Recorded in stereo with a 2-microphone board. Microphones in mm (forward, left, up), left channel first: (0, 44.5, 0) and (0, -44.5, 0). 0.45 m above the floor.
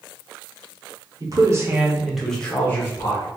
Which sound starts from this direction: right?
A man speaking, at 1.2 s.